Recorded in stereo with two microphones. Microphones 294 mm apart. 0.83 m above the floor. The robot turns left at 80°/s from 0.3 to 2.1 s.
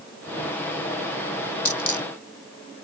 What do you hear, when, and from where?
1.6 s a dropped coin: 75° left (ahead or behind); by 2.1 s 70° left (ahead or behind)